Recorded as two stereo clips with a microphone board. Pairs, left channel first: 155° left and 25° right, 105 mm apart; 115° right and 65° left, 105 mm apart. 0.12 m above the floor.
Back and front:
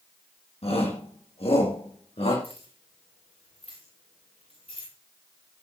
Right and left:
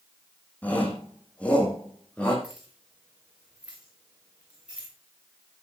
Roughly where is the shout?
Behind.